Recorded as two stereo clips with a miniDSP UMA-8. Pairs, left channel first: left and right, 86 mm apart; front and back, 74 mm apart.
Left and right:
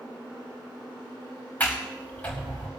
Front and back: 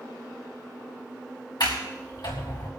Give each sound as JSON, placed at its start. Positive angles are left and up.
{"t": 1.6, "sound": "a sliding door", "azimuth_deg": 20, "distance_m": 4.5}